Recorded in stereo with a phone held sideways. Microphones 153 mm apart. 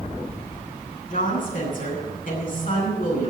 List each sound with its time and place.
1.1 s a woman speaking: 65° left (ahead or behind), 9 m